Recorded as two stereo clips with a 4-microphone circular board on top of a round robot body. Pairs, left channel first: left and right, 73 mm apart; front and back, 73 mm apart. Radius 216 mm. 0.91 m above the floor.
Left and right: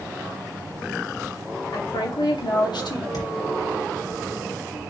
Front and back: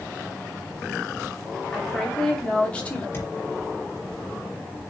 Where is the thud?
60° left, 4 m.